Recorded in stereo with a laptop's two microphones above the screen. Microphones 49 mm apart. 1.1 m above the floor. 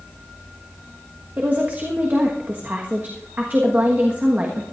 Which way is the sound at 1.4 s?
35° right (ahead or behind).